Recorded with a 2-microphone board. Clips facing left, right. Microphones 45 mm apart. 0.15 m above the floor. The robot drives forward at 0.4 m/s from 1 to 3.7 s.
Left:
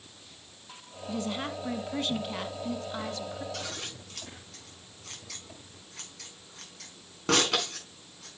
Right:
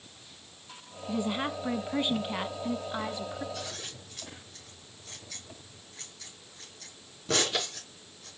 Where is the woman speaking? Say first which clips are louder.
Right 2 dB; 15° right (ahead or behind), 1.2 m.